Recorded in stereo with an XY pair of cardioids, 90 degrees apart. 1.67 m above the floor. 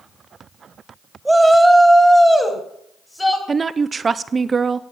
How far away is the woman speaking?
About 0.7 m.